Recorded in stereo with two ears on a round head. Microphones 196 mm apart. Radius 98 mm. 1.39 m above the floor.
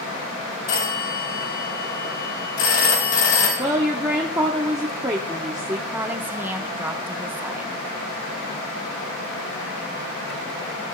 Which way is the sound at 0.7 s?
65° left (ahead or behind).